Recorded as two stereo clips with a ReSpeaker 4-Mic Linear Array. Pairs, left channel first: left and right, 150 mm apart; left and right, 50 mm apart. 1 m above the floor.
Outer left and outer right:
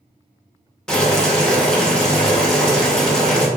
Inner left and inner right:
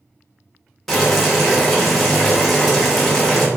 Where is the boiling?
5° left (ahead or behind), 0.7 m.